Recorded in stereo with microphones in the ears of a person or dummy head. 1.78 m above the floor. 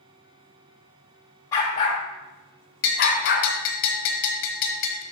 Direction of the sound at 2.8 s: 60° left (ahead or behind).